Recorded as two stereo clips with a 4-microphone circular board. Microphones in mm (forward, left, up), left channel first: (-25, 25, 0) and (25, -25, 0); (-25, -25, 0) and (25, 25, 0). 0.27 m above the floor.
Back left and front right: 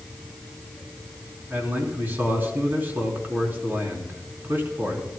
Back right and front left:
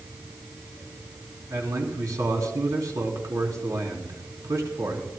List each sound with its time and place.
1.5 s a man speaking: 15° left, 3.5 m